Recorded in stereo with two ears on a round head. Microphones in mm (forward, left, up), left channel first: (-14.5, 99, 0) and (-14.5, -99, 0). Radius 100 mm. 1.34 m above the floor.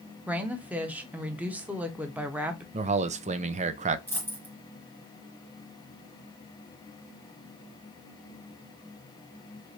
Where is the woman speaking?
5° right (ahead or behind), 0.7 m.